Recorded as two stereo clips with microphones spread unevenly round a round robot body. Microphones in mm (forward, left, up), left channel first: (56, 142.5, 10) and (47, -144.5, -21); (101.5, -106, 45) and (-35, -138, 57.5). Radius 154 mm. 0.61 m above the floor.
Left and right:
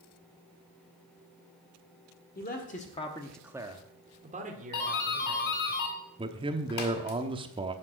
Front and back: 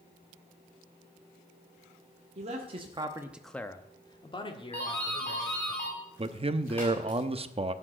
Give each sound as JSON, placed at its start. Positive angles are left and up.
{"t": 2.4, "sound": "a man speaking", "azimuth_deg": 150, "distance_m": 1.6}
{"t": 4.7, "sound": "a doorbell", "azimuth_deg": 90, "distance_m": 2.0}
{"t": 6.2, "sound": "a man speaking", "azimuth_deg": -145, "distance_m": 0.9}